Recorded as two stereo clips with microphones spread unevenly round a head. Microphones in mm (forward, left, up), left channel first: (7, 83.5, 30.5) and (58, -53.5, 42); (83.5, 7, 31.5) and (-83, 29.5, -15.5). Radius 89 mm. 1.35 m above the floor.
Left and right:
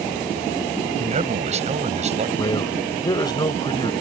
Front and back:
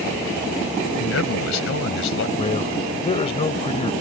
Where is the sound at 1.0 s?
25° right.